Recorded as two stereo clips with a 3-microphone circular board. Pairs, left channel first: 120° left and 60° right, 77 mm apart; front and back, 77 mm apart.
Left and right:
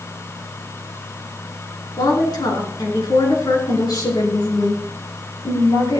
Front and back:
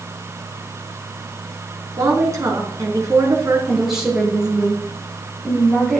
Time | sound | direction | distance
2.0 | a woman speaking | 135° left | 3.5 m
3.7 | a woman speaking | 95° left | 6 m